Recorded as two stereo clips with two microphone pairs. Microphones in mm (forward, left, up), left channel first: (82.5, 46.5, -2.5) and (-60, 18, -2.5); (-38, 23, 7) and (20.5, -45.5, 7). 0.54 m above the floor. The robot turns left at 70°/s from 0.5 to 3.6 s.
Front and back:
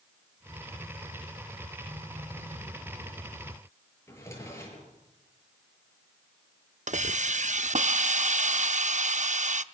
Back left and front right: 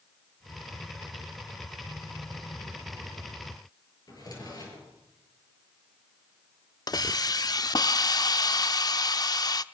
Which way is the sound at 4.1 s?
85° left.